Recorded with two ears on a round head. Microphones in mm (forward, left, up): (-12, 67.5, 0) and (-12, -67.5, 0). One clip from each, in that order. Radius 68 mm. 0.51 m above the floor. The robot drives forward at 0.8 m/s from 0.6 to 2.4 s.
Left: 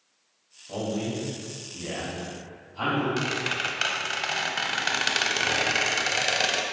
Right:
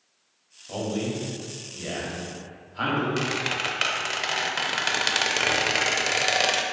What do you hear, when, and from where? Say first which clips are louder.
0.7 s a man speaking: right 1 dB; 65° right (ahead or behind), 2.5 m; by 3.1 s 50° right (ahead or behind), 3 m
3.2 s a squeak: right 1 dB; 15° right (ahead or behind), 0.5 m